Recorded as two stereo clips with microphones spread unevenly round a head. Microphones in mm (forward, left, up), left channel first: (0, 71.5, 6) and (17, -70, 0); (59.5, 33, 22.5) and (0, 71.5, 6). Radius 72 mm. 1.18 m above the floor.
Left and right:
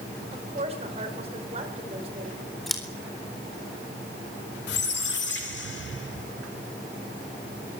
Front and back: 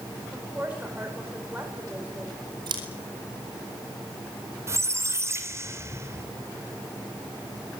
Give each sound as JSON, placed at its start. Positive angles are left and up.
{"t": 0.3, "sound": "a woman speaking", "azimuth_deg": -135, "distance_m": 5.0}
{"t": 2.7, "sound": "scissors", "azimuth_deg": -175, "distance_m": 4.0}
{"t": 4.7, "sound": "a squeak", "azimuth_deg": 95, "distance_m": 3.0}